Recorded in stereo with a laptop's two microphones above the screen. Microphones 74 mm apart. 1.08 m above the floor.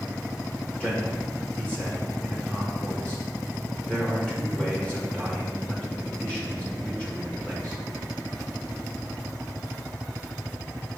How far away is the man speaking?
About 1.6 m.